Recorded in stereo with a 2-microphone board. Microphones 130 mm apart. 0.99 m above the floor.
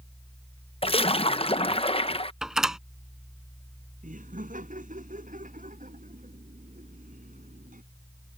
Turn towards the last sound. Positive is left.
turn(degrees=-80)